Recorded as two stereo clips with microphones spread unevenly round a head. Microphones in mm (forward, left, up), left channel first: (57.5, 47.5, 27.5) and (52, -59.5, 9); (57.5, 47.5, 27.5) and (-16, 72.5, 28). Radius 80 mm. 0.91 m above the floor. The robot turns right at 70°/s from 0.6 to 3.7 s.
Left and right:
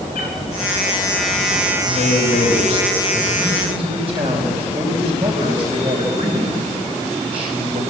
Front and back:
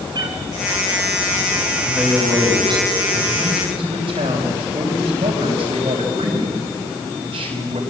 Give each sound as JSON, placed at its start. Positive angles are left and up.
{"t": 0.1, "sound": "a cat meowing", "azimuth_deg": 130, "distance_m": 3.5}
{"t": 1.8, "sound": "a man speaking", "azimuth_deg": 75, "distance_m": 4.5}